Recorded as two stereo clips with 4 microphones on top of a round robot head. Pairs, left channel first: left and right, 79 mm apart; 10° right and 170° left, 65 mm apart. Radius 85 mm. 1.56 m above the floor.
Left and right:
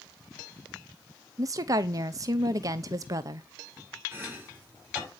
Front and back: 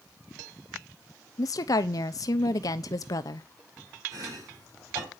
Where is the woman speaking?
45° right, 0.9 m.